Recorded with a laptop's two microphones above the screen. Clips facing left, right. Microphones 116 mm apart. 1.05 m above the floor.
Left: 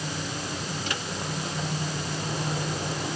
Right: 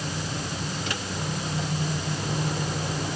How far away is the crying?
No crying in this recording.